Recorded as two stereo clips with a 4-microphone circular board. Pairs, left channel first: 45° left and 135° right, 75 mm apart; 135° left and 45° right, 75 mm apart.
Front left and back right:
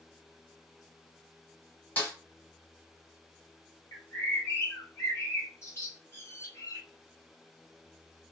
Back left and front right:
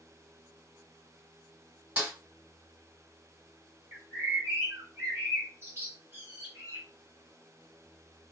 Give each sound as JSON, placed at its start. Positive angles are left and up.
{"t": 2.0, "sound": "a snare drum", "azimuth_deg": 10, "distance_m": 1.5}
{"t": 3.9, "sound": "a bird", "azimuth_deg": 0, "distance_m": 1.1}